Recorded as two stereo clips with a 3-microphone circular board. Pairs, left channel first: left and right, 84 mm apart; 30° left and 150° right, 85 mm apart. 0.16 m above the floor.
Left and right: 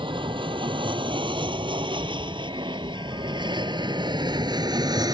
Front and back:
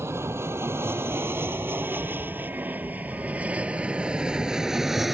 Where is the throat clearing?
I don't hear throat clearing.